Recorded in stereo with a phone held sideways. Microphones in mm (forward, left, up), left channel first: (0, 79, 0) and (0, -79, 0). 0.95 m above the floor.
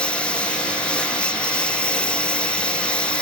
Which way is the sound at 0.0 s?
5° left (ahead or behind).